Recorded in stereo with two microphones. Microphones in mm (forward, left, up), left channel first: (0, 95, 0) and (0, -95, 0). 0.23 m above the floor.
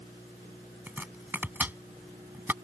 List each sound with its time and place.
0.9 s chopping: 10° right (ahead or behind)